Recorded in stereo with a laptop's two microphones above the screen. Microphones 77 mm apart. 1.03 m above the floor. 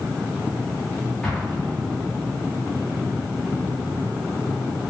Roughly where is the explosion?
Centre.